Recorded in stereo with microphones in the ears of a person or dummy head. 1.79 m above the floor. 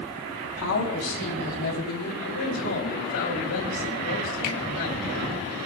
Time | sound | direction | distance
0.4 | a woman speaking | 75° left (ahead or behind) | 4 m
2.2 | a man speaking | 75° left (ahead or behind) | 5.5 m
4.4 | a finger snap | 60° left (ahead or behind) | 1.7 m